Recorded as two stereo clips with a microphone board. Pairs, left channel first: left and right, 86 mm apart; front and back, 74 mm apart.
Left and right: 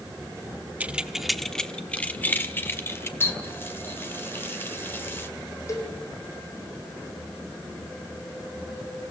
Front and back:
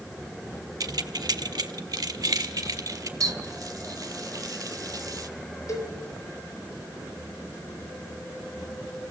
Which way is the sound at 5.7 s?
40° left.